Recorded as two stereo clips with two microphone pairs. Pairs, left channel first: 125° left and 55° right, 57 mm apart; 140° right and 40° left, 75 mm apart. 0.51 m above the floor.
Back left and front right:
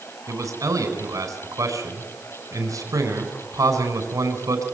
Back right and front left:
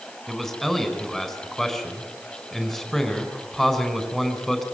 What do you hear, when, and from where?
0.3 s a man speaking: 55° right, 5 m